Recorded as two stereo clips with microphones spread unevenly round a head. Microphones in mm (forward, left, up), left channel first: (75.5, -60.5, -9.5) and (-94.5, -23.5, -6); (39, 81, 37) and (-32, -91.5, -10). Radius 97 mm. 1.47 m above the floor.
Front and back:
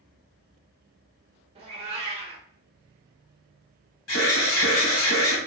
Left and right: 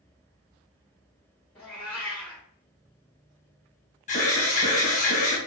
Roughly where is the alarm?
Ahead.